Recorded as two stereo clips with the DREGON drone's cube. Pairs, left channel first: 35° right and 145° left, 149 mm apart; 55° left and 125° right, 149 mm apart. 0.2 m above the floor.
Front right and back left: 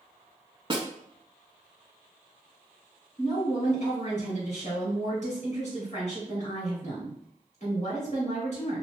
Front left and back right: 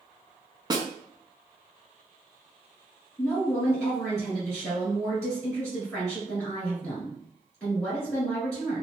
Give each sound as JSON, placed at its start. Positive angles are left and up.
{"t": 0.7, "sound": "a snare drum", "azimuth_deg": -175, "distance_m": 0.6}
{"t": 3.2, "sound": "a woman speaking", "azimuth_deg": -25, "distance_m": 1.9}